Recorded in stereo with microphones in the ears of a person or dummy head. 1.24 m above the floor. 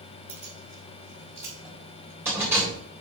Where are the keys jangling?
15° right (ahead or behind), 5 m; by 2.7 s 10° right (ahead or behind), 3.5 m.